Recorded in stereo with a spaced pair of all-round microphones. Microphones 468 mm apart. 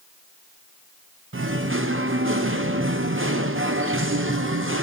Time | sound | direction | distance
1.3 | singing | 25° right (ahead or behind) | 0.6 m